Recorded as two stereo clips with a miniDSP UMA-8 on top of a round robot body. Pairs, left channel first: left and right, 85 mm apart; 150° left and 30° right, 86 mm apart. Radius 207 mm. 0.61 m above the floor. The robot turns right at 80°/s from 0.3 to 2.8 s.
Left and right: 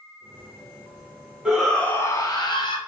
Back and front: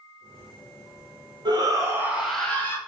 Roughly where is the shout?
Ahead.